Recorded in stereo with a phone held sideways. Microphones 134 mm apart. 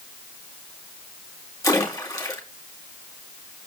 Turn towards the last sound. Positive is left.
turn(degrees=25)  # may be behind; listen again after turning